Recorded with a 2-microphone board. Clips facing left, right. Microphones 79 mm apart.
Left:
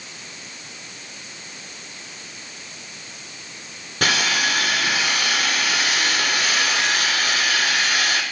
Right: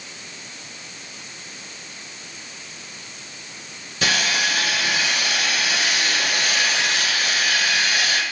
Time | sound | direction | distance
4.0 | sawing | 65° left (ahead or behind) | 6 m